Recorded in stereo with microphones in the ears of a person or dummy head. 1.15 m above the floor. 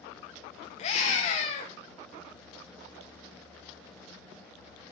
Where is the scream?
35° left (ahead or behind), 0.7 m.